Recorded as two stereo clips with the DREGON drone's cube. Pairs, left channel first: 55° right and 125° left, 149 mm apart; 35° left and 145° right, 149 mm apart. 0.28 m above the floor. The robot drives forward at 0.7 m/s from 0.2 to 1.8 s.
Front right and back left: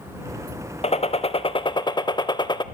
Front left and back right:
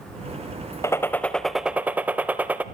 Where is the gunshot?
30° right, 1.2 m; by 2.6 s 75° right, 0.9 m.